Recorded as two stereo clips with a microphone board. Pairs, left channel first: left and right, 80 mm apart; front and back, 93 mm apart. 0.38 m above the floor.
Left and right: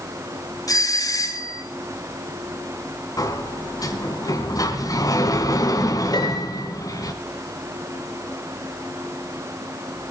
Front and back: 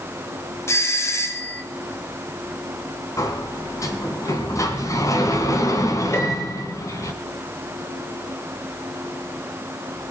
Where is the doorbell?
55° left, 3.5 m.